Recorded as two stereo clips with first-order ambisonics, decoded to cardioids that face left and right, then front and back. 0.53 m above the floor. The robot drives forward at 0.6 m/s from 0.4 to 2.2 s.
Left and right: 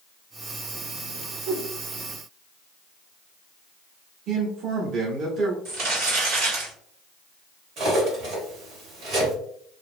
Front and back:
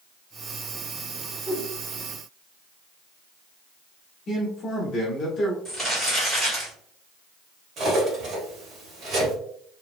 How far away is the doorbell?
I don't hear a doorbell.